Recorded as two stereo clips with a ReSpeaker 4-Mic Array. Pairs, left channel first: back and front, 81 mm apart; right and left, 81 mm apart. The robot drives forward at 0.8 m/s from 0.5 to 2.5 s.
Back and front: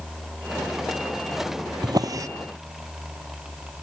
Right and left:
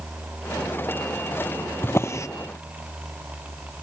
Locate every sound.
1.8 s a drawer: 30° right; by 2.3 s 45° right